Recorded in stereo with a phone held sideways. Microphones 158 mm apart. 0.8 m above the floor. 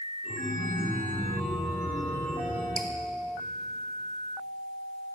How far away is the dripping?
About 0.8 m.